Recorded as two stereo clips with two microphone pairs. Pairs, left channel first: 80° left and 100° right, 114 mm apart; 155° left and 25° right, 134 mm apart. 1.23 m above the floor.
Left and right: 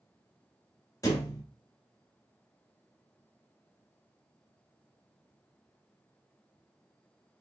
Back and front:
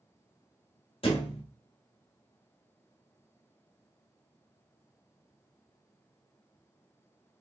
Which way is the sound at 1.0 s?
130° left.